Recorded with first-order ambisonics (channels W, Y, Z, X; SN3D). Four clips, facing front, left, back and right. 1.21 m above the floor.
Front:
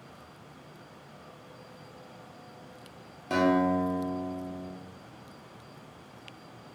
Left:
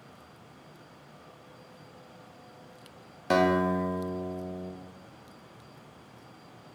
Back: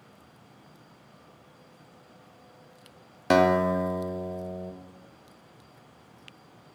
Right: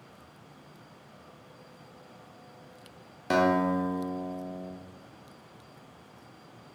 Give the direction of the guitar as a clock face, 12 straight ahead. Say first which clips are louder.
Even, back 4 dB; 6 o'clock.